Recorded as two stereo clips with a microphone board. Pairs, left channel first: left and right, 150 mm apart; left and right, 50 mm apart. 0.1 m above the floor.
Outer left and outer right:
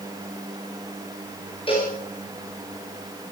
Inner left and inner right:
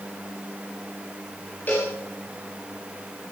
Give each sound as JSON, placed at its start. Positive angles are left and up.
{"t": 1.7, "sound": "a cowbell", "side_deg": 35, "distance_m": 8.0}